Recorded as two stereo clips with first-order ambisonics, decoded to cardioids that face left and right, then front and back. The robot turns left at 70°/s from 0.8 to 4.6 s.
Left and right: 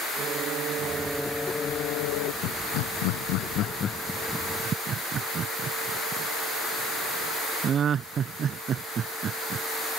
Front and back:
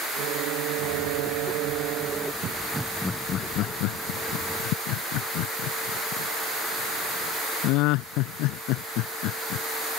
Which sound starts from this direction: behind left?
Laughter, at 2.4 s.